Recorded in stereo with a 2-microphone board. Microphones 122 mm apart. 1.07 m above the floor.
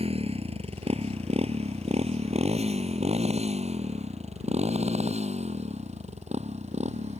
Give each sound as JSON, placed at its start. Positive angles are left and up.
{"t": 0.0, "sound": "a motorcycle", "side_deg": -55}